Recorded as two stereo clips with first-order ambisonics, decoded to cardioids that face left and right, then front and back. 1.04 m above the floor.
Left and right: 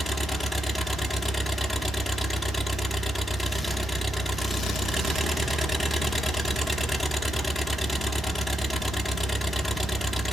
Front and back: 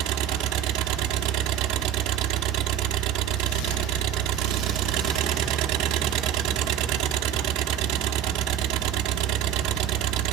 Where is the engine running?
Straight behind, 0.9 m.